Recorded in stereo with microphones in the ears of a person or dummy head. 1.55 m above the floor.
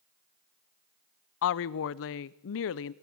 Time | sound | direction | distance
1.4 | a woman speaking | 65° left (ahead or behind) | 0.6 m